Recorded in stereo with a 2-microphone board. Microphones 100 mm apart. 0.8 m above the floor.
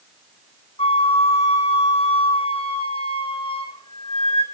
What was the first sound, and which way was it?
A flute, 75° left (ahead or behind).